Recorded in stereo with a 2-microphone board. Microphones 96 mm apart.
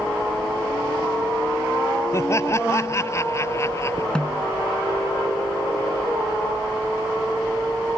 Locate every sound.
2.1 s laughter: 30° left (ahead or behind)
4.2 s a snare drum: 10° left (ahead or behind)